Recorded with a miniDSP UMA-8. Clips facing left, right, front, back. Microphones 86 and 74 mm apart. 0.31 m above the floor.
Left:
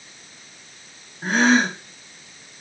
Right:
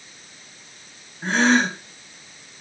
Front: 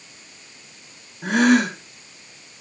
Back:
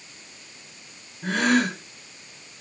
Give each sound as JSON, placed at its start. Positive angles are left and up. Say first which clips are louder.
{"t": 1.2, "sound": "a gasp", "louder": "left 1 dB, front 5 dB", "azimuth_deg": 10, "distance_m": 3.0}